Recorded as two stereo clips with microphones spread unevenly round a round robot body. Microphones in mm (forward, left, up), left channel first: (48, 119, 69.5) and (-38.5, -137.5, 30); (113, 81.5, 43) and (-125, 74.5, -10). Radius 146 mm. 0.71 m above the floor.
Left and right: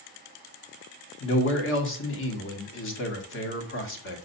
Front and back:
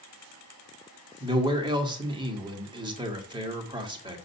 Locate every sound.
1.2 s a man speaking: 120° left, 1.9 m